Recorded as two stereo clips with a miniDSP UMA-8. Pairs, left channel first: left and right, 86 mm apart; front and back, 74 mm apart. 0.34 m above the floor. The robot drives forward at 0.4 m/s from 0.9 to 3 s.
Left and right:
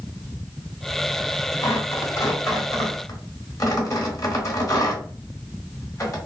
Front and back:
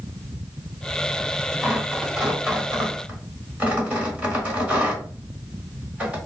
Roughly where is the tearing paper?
Left.